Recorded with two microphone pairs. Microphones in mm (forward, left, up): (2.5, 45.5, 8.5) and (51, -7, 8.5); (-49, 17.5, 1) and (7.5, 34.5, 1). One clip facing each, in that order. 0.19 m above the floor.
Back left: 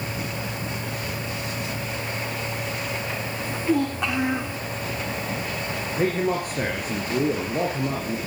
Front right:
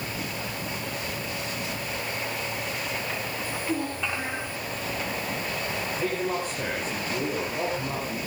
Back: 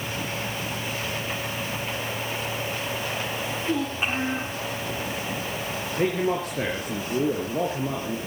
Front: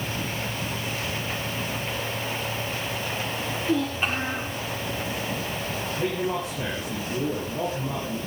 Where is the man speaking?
165° left, 4 m.